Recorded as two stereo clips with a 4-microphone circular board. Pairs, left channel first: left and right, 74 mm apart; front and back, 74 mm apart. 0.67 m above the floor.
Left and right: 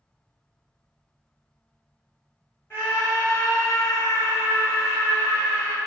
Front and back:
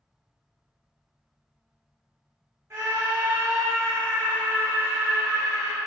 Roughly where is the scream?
Behind left.